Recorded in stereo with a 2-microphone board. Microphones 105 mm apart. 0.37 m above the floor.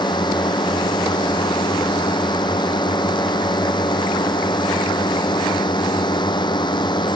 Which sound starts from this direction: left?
A drone, at 0.0 s.